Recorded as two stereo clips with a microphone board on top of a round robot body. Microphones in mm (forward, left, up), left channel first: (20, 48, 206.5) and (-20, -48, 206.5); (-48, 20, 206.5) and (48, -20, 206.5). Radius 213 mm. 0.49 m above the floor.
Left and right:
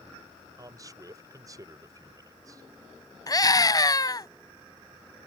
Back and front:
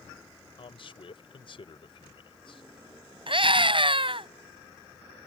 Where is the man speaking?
165° right.